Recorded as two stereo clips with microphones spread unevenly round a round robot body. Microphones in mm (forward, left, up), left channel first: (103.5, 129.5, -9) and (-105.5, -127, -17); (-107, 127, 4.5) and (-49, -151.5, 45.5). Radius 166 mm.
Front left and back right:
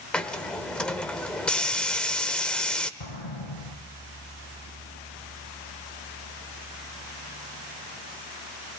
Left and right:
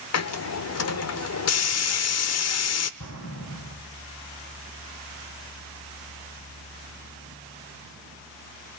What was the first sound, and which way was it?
A hiss, 140° left.